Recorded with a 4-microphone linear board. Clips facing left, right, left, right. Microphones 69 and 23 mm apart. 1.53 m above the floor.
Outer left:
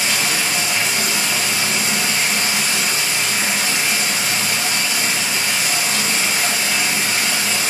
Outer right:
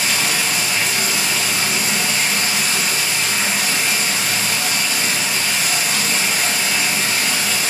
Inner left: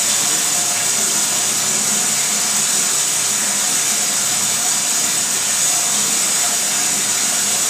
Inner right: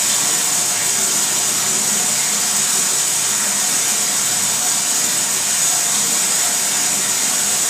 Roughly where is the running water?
Left.